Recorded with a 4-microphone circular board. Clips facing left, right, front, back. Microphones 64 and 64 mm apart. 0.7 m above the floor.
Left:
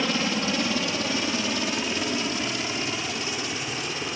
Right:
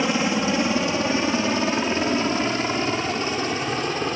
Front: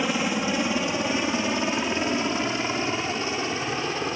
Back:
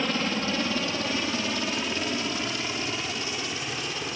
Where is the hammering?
No hammering in this recording.